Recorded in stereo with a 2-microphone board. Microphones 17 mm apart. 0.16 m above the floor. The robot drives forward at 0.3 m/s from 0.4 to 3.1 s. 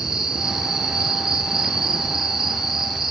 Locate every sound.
0.0 s an insect: 45° right (ahead or behind), 1.7 m; by 3.1 s 30° right (ahead or behind), 2 m